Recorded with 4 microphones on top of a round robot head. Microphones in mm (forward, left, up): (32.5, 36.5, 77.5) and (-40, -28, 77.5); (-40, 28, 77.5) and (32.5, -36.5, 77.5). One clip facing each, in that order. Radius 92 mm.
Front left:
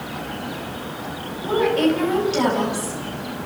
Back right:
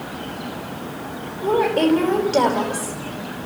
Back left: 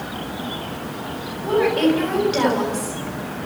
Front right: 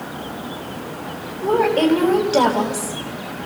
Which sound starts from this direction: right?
A woman speaking, at 1.4 s.